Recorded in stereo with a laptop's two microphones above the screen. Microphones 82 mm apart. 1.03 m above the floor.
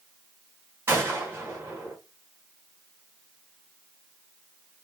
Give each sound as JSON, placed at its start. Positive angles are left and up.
{"t": 0.9, "sound": "a gunshot", "side_deg": -30, "distance_m": 1.1}